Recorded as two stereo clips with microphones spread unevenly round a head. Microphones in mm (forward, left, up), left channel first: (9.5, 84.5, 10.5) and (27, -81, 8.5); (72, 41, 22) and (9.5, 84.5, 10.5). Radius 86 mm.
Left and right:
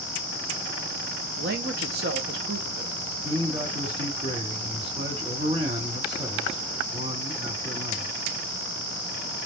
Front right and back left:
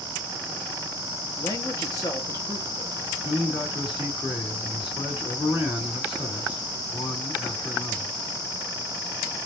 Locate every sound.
1.4 s a man speaking: 95° right, 1.0 m
3.2 s a man speaking: 30° right, 2.5 m